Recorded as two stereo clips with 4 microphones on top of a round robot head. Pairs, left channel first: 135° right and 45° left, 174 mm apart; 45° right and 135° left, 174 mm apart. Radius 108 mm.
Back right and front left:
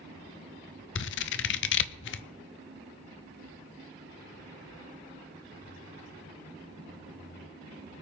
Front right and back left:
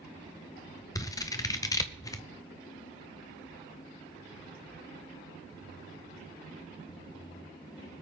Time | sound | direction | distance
0.9 | scissors | 115° right | 0.6 m